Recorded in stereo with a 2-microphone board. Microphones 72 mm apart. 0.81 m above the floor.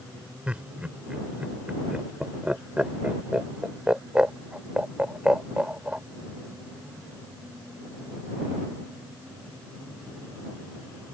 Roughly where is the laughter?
Centre.